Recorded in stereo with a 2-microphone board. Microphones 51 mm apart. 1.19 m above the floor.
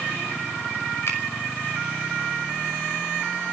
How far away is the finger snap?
About 6 m.